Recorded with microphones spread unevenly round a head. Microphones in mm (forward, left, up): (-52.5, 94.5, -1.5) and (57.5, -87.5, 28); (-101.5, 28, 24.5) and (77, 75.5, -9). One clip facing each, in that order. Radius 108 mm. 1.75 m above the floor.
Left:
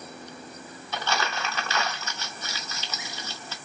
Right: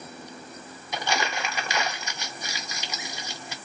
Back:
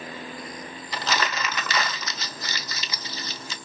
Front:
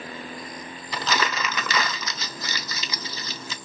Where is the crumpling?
15° left, 0.5 m.